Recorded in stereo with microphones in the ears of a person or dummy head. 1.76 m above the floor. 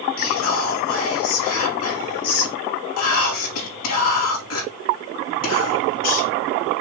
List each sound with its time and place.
0.2 s whispering: 80° left, 3.5 m